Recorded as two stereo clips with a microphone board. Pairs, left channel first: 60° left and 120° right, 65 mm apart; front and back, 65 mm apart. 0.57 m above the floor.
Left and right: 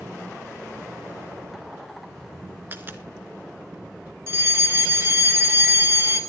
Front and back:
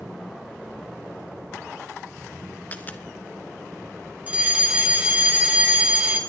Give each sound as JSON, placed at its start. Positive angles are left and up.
{"t": 2.7, "sound": "a dropped coin", "azimuth_deg": -60, "distance_m": 1.3}
{"t": 4.3, "sound": "a fire alarm", "azimuth_deg": -125, "distance_m": 2.5}